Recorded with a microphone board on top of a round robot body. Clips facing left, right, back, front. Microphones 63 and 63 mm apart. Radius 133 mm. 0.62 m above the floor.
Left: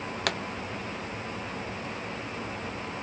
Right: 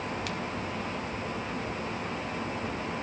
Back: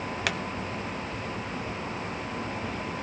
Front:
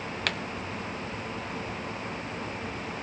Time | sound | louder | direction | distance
0.3 | a pop | left 4 dB, back 1 dB | 100° left | 1.0 m